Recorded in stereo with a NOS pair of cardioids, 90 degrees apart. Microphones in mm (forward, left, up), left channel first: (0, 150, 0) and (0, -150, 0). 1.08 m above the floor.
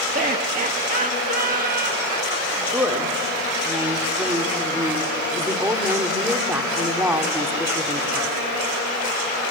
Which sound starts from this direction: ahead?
A woman speaking, at 2.6 s.